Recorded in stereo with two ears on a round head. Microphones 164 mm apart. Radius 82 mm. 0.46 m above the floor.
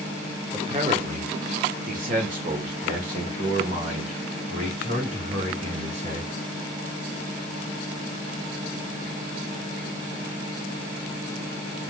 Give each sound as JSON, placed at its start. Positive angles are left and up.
{"t": 0.5, "sound": "a man speaking", "side_deg": -30, "distance_m": 1.5}